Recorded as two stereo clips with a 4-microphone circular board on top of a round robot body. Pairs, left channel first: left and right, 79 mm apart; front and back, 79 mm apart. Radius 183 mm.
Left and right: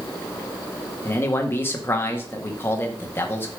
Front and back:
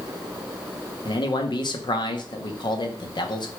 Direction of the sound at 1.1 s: 25° left.